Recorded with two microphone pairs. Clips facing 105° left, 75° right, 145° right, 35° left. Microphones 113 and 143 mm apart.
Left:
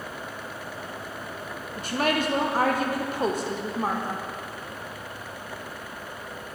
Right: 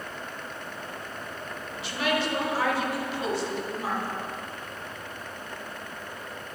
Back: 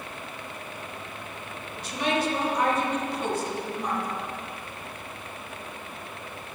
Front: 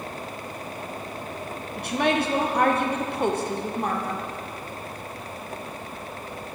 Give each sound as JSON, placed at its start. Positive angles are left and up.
{"t": 1.8, "sound": "a woman speaking", "azimuth_deg": 60, "distance_m": 0.7}